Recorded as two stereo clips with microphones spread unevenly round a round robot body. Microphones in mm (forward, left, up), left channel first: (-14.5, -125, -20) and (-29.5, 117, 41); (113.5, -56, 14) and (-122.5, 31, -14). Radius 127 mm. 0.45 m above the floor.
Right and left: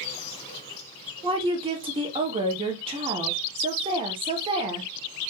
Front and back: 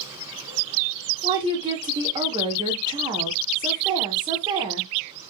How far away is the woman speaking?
About 0.7 m.